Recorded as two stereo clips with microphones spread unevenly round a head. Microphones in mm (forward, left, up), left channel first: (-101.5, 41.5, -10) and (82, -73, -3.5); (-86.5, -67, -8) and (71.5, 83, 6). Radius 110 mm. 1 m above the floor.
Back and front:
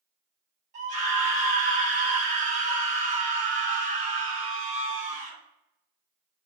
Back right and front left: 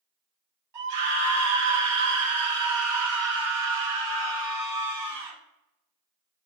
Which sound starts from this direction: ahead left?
A scream, at 0.7 s.